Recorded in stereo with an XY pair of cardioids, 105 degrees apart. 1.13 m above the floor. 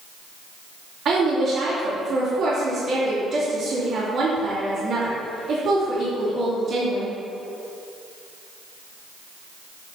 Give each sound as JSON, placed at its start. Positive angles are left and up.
{"t": 1.1, "sound": "a woman speaking", "azimuth_deg": -60, "distance_m": 3.0}